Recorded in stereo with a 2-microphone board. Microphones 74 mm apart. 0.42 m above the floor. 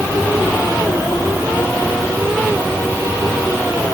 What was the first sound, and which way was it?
Only background noise.